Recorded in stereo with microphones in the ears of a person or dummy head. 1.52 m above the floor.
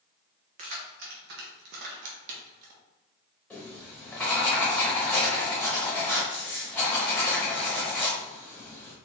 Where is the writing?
5° left (ahead or behind), 0.9 m.